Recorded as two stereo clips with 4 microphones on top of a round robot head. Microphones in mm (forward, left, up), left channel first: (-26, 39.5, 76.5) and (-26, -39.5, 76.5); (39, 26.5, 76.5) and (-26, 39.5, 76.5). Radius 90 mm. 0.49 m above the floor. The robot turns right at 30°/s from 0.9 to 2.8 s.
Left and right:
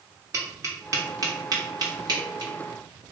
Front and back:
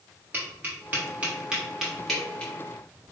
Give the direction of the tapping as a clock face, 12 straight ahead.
4 o'clock.